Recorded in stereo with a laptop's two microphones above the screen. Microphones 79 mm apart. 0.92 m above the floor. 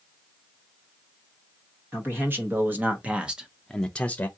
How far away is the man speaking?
About 1.3 m.